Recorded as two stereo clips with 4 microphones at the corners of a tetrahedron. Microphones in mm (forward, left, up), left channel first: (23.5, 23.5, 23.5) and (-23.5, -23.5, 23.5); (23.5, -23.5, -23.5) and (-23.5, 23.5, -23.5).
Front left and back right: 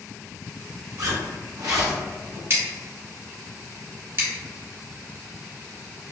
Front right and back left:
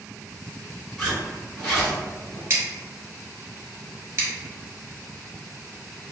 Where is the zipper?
130° right, 1.7 m.